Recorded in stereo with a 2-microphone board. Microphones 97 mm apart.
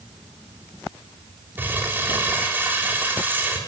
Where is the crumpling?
20° right (ahead or behind), 4 m.